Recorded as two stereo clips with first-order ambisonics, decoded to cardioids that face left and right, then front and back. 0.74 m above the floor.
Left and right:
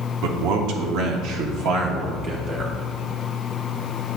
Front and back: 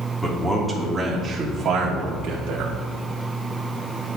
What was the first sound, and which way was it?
A man speaking, 85° right.